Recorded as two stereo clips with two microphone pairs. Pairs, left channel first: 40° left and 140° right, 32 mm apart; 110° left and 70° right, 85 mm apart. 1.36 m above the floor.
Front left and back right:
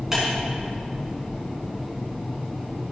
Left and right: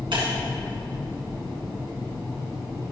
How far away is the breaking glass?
About 4.5 m.